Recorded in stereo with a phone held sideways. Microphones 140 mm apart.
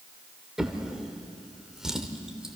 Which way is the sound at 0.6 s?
5° right (ahead or behind).